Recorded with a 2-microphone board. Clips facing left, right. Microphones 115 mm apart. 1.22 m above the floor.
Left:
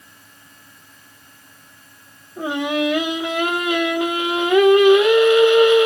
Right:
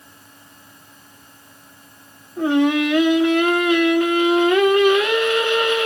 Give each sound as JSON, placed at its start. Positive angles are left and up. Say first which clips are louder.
{"t": 2.4, "sound": "singing", "louder": "right 5 dB", "side_deg": 15, "distance_m": 1.5}